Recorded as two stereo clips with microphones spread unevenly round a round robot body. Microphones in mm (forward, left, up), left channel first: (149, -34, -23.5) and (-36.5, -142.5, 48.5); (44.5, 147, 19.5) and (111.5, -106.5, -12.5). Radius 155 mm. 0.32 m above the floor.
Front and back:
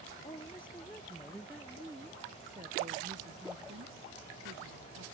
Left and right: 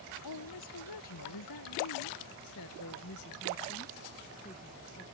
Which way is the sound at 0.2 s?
105° left.